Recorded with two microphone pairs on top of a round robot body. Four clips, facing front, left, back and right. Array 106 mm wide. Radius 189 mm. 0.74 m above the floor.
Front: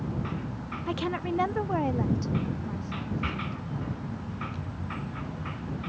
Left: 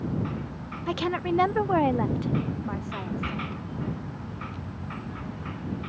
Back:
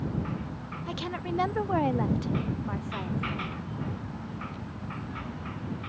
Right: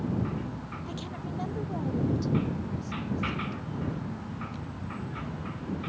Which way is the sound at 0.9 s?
75° left.